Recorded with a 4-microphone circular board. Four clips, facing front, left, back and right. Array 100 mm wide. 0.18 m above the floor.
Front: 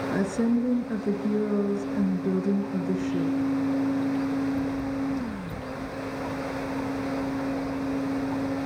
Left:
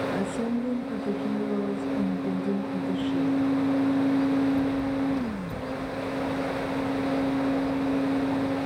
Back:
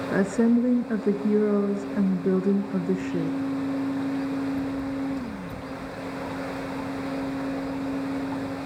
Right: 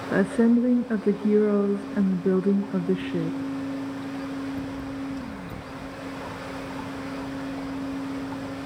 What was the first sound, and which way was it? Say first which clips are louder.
A woman speaking: right 7 dB, back 4 dB; 125° right.